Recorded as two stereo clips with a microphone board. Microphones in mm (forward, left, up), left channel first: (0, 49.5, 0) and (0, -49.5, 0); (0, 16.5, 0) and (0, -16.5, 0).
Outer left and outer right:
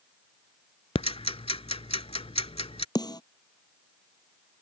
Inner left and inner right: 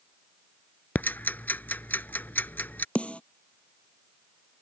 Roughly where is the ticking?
Left.